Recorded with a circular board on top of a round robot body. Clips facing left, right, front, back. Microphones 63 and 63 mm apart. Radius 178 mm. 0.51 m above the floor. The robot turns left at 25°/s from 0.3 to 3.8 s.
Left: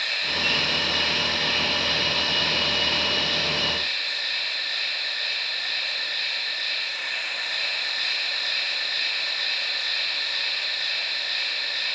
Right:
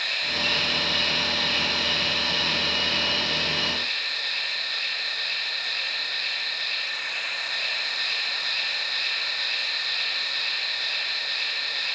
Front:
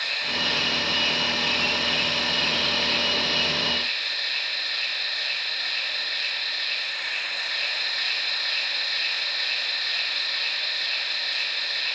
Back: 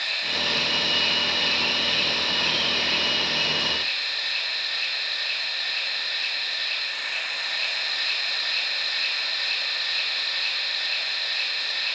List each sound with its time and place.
0.0 s an insect: 45° right, 7.5 m; by 12.0 s 130° right, 7.5 m